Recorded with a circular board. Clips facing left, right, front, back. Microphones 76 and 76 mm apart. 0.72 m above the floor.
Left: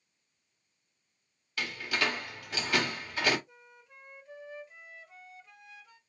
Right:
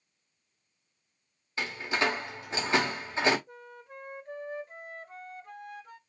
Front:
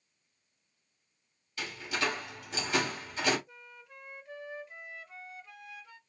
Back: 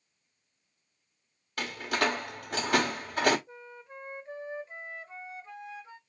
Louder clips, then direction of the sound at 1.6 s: Right 3 dB, back 5 dB; 150° right.